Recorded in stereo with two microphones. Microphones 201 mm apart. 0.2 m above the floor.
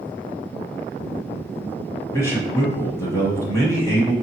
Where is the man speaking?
15° left (ahead or behind), 1.0 m.